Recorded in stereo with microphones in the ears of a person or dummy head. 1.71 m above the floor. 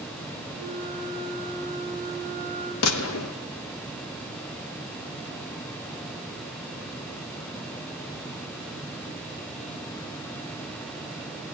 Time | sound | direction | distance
0.6 | a flute | 30° left (ahead or behind) | 9 m
2.8 | a gunshot | 75° left (ahead or behind) | 1.0 m